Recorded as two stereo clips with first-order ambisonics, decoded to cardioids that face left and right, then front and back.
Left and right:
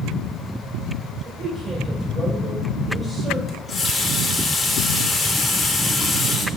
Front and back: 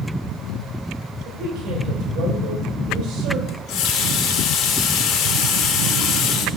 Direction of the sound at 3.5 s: 25° left.